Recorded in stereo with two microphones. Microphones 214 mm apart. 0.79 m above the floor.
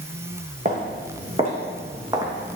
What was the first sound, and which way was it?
Footsteps, 35° right (ahead or behind).